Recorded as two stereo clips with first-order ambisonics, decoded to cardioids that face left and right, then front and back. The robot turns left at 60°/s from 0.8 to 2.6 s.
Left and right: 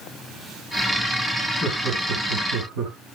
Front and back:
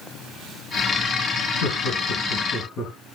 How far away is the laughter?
About 4.5 m.